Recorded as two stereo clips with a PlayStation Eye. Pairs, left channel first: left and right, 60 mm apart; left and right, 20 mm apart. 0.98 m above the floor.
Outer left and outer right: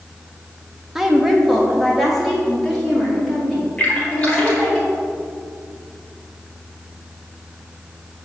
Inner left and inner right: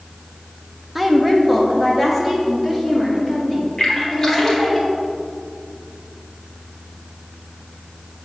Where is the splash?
20° left (ahead or behind), 1.8 m.